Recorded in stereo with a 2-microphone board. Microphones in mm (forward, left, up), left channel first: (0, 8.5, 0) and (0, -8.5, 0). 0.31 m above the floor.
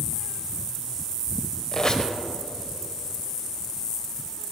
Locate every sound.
1.7 s a squeak: 35° left (ahead or behind), 0.7 m